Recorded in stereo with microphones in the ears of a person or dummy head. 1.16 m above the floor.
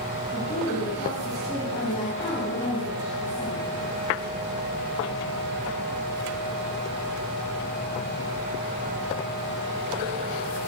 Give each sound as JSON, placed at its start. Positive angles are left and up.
{"t": 0.3, "sound": "a woman speaking", "side_deg": 30, "distance_m": 10.0}